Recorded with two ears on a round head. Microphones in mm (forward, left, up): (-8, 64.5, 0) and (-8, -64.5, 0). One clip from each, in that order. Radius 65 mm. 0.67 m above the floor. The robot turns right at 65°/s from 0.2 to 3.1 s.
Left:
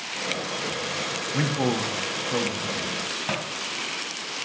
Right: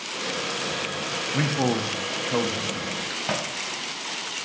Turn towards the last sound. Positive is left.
turn(degrees=-5)  # may be behind; listen again after turning